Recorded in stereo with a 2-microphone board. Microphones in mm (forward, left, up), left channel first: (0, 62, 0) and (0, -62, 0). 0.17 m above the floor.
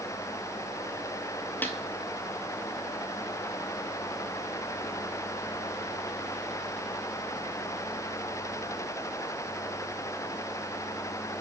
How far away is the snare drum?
About 0.7 m.